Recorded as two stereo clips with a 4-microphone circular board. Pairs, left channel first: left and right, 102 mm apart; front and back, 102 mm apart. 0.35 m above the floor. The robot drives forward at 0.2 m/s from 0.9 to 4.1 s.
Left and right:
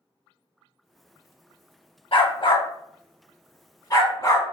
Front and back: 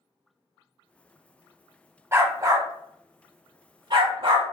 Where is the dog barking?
115° left, 0.5 m; by 4.5 s 145° left, 0.8 m.